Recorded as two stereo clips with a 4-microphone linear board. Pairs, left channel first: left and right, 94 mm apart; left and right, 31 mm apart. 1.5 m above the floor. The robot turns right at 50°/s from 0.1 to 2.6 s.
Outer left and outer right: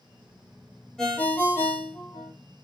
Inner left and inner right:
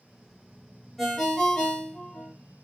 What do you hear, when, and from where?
1.0 s a ringtone: 10° left, 1.0 m; by 2.3 s 75° left, 1.0 m